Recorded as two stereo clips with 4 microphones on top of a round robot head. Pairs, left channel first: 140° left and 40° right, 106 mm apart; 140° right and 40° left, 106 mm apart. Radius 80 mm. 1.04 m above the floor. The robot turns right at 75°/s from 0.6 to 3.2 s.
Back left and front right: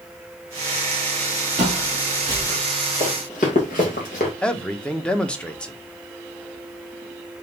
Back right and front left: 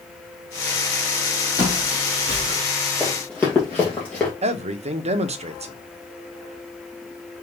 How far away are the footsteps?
About 2 m.